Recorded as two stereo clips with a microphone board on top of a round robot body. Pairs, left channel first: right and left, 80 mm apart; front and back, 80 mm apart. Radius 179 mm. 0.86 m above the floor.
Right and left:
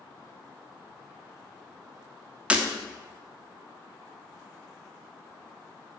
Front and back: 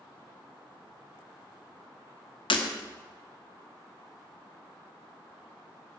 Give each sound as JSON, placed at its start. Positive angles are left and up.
{"t": 2.5, "sound": "breaking glass", "azimuth_deg": 15, "distance_m": 1.2}